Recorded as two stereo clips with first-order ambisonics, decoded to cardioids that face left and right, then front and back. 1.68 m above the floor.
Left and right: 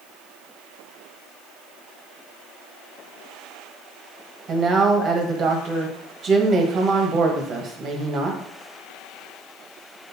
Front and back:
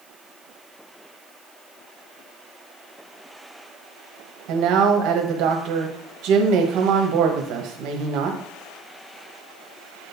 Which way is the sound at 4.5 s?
150° right.